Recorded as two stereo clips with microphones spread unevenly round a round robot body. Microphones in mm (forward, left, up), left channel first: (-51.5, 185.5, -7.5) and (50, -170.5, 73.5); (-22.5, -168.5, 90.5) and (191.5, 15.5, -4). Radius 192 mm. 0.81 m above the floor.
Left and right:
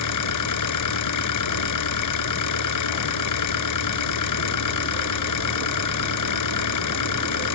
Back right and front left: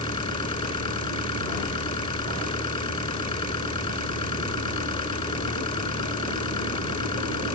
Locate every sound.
0.0 s an engine running: 145° left